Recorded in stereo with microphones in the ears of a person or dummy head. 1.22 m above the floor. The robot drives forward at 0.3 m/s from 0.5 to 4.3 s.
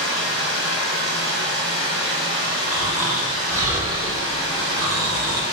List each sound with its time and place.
0.0 s running water: 60° left (ahead or behind), 0.9 m; by 5.5 s 30° left (ahead or behind), 1.6 m
2.7 s snoring: 10° right (ahead or behind), 0.8 m; by 5.4 s 20° right (ahead or behind), 0.5 m